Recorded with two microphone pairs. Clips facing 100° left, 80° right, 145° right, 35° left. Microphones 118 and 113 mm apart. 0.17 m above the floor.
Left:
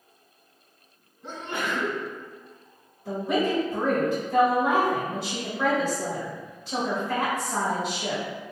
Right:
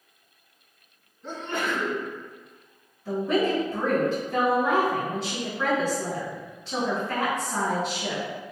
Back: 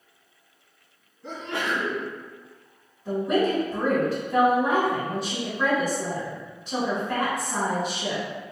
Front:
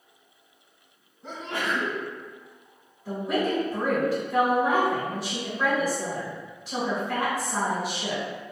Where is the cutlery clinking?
I don't hear cutlery clinking.